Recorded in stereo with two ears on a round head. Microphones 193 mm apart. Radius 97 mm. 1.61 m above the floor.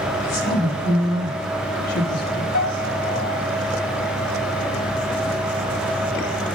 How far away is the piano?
About 2.5 m.